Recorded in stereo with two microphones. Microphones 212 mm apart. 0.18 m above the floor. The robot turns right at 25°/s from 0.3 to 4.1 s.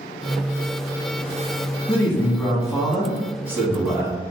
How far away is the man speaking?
About 1.1 m.